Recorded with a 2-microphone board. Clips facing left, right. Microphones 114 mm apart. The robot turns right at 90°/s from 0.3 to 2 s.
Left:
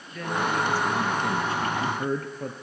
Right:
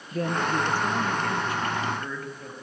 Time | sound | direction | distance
0.1 | a man speaking | 65° right | 2 m